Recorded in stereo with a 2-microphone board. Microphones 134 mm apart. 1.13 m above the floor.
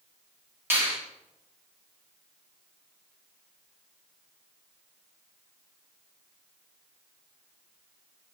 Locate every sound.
0.7 s a finger snap: 20° right (ahead or behind), 2.5 m